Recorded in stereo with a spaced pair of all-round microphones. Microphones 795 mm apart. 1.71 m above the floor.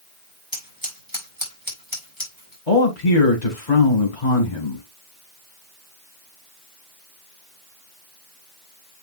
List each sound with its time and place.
0.5 s scissors: 25° right (ahead or behind), 4.5 m
2.7 s a man speaking: 60° left (ahead or behind), 2.5 m